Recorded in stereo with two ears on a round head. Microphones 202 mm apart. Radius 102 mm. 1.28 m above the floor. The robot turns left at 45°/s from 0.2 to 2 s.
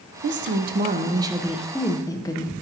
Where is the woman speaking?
115° right, 0.6 m; by 2.5 s 165° left, 0.6 m.